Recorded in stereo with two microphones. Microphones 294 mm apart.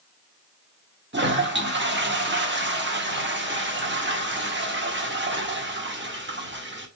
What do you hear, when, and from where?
1.1 s a toilet flushing: 40° right (ahead or behind), 0.8 m